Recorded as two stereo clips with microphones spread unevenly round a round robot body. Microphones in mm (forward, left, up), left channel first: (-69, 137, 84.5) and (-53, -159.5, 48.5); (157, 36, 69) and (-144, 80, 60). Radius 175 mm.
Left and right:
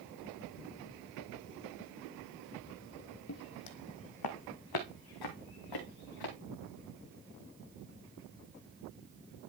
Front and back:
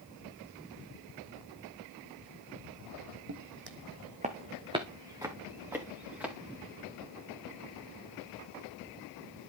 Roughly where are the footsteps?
Behind left.